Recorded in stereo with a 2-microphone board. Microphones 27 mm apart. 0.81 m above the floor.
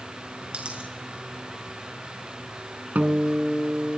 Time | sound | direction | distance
0.5 | a dropped coin | 40° right (ahead or behind) | 5.5 m
3.0 | a guitar | 75° right (ahead or behind) | 2 m